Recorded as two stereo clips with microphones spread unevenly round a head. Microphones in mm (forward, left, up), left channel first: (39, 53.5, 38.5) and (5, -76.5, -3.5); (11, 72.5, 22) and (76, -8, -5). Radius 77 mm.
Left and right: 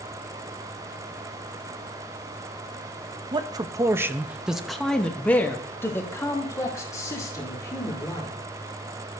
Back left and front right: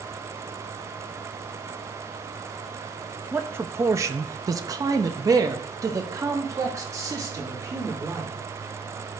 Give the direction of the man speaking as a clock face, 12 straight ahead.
3 o'clock.